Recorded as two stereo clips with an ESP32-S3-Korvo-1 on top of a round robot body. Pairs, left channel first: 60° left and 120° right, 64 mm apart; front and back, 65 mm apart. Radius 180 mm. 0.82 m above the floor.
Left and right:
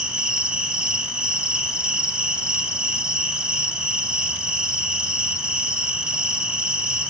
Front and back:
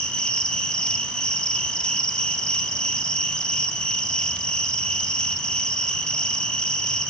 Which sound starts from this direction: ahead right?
An insect, at 0.0 s.